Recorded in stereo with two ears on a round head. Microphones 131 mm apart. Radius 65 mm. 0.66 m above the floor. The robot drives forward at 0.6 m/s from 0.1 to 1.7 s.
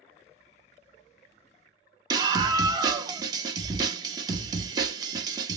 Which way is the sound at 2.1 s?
25° right (ahead or behind).